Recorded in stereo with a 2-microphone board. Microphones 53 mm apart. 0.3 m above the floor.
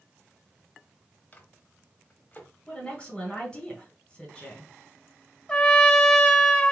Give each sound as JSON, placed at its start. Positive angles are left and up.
{"t": 1.3, "sound": "a microwave", "side_deg": 30, "distance_m": 0.9}
{"t": 2.7, "sound": "a woman speaking", "side_deg": 20, "distance_m": 1.6}
{"t": 5.5, "sound": "a trumpet", "side_deg": 20, "distance_m": 0.7}